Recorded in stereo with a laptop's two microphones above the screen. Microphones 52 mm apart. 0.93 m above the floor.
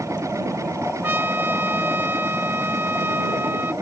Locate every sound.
0.0 s a machine running: 75° right (ahead or behind)
1.0 s a trumpet: 45° right (ahead or behind)